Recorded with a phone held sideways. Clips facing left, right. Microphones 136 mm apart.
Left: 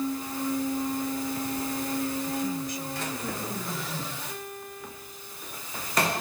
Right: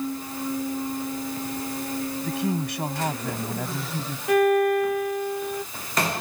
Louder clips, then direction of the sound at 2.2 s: Right 3 dB; 75° right (ahead or behind).